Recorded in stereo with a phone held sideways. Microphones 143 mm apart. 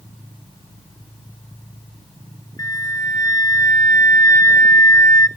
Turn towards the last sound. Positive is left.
turn(degrees=25)  # may be behind; listen again after turning